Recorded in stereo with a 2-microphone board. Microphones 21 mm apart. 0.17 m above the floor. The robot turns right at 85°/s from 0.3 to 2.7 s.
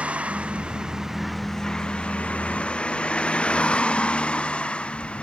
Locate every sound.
0.0 s a vehicle: 85° right; by 5.2 s 120° left